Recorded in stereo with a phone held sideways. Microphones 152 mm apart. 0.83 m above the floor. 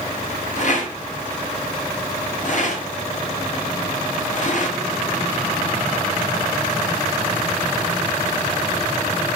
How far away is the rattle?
About 1.6 m.